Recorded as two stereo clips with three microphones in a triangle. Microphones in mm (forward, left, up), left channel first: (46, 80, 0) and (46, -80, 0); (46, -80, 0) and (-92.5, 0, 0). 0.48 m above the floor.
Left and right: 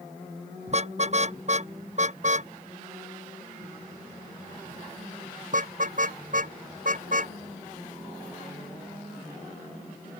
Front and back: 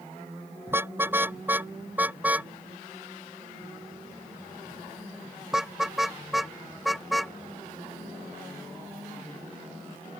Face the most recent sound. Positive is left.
turn(degrees=-120)